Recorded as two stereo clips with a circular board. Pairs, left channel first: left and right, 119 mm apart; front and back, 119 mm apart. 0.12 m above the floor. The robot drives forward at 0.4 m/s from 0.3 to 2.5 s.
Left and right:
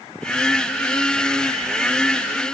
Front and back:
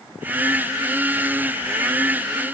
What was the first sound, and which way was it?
Only background noise.